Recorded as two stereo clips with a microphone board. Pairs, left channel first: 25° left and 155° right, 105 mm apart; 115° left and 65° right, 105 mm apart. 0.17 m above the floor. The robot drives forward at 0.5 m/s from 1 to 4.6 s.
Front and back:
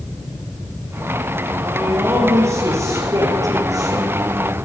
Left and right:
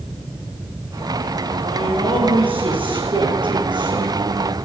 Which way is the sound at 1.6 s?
90° right.